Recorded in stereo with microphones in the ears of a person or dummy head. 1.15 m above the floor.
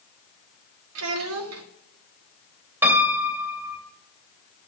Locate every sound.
0.9 s a child speaking: 80° right, 1.4 m
2.8 s a piano: 15° right (ahead or behind), 2.5 m